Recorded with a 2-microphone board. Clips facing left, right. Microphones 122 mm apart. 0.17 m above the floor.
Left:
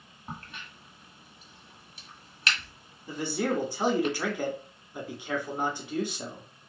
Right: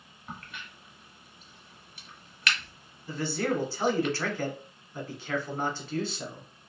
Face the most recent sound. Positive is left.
turn(degrees=15)  # may be behind; listen again after turning